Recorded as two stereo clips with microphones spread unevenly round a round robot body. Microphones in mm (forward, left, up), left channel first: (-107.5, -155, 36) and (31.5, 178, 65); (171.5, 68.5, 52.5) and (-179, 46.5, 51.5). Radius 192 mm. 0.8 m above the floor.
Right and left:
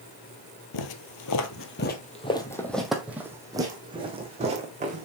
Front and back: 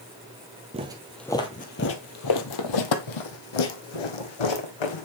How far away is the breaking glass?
No breaking glass in this recording.